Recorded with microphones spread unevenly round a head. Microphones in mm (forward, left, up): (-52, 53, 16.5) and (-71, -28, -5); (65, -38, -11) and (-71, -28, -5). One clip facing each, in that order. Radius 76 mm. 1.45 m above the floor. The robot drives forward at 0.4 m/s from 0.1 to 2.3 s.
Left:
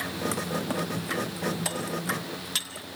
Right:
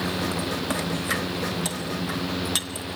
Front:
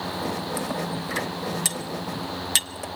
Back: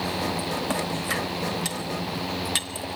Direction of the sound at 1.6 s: 25° right.